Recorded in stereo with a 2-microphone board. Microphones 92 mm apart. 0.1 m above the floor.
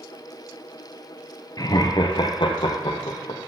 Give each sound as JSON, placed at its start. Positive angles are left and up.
{"t": 1.6, "sound": "laughter", "side_deg": 45, "distance_m": 1.5}